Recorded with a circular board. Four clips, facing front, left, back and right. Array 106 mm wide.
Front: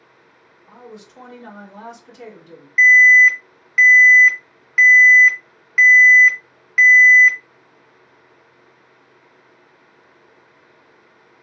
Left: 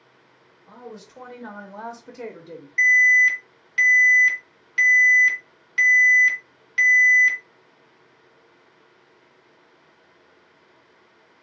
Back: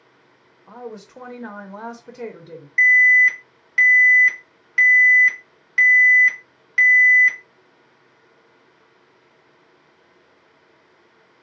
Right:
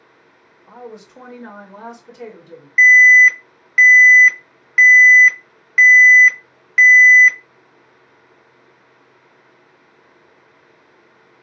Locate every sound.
0.7 s a woman speaking: 145° right, 1.1 m; by 2.7 s 135° left, 1.0 m
2.8 s an alarm: 70° right, 1.0 m